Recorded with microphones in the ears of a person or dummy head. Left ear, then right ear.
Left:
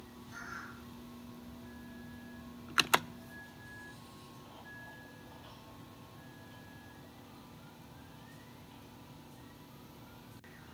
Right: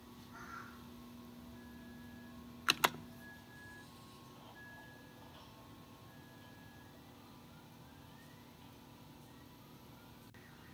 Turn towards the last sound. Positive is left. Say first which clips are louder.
# left 5 dB
turn(degrees=55)  # may be behind; listen again after turning